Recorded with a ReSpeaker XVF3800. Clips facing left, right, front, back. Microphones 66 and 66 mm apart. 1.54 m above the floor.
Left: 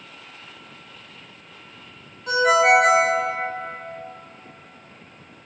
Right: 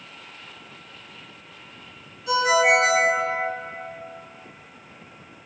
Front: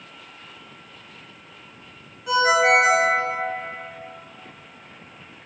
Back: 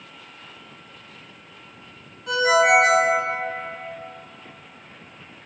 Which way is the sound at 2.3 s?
80° left.